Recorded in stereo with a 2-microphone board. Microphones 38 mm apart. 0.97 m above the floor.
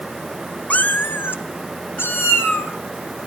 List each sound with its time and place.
0.7 s a cat meowing: 40° left (ahead or behind), 0.6 m; by 2.7 s 80° left, 2.5 m